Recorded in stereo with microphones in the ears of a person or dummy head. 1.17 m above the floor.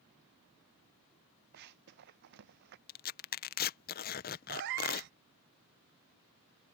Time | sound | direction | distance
1.5 | running footsteps | 60° right (ahead or behind) | ?
2.9 | tearing paper | 40° left (ahead or behind) | ?
4.5 | a cat meowing | 55° right (ahead or behind) | ?